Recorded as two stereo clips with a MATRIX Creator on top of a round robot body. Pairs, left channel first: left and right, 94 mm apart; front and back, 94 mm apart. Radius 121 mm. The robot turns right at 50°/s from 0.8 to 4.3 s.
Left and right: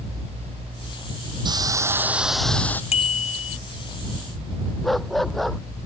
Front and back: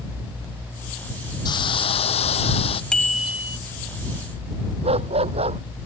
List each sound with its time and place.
1.4 s a hiss: 45° right; by 2.8 s 20° left
2.9 s a bicycle bell: 80° left; by 3.6 s 115° left
4.8 s a dog barking: straight behind